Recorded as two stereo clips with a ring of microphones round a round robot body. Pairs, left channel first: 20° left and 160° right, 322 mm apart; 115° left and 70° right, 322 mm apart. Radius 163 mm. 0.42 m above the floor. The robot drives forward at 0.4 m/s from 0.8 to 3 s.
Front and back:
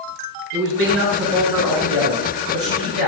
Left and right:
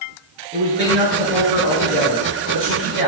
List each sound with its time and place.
0.5 s a man speaking: 140° right, 4.5 m; by 3.1 s 145° right, 5.5 m